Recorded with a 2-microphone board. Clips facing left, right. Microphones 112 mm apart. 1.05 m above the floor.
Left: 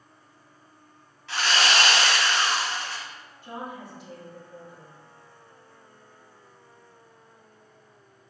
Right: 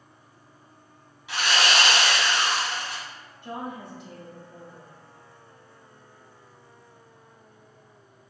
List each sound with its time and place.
1.3 s sawing: 15° right (ahead or behind), 1.5 m
3.4 s a woman speaking: 60° right (ahead or behind), 1.6 m